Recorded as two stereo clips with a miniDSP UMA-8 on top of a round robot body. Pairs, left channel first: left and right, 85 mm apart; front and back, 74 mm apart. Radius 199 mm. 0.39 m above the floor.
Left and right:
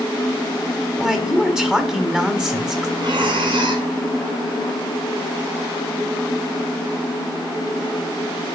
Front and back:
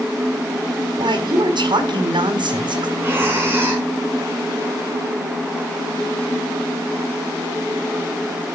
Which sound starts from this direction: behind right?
Breathing, at 3.0 s.